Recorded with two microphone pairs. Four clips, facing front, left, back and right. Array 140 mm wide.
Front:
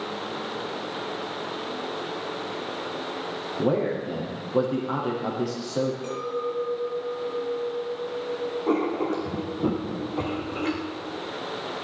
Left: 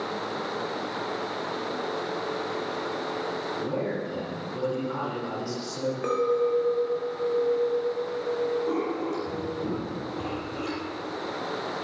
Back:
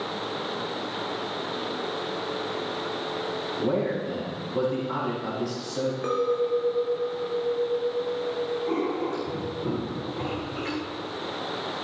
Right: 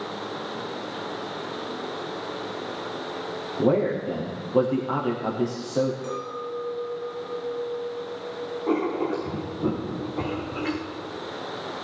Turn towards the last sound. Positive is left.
turn(degrees=-30)